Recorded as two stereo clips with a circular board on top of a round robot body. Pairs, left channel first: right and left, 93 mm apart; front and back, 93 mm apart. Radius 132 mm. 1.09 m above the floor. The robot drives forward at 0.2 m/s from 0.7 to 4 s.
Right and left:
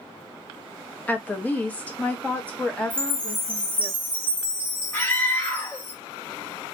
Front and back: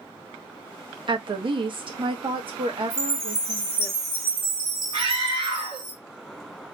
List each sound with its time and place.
1.1 s a woman speaking: 160° right, 0.7 m; by 3.9 s 170° right, 1.2 m
2.9 s a chime: 160° left, 1.3 m
4.9 s a scream: 160° right, 1.1 m